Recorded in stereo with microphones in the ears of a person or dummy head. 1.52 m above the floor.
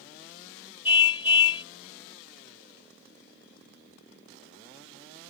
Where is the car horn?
35° left (ahead or behind).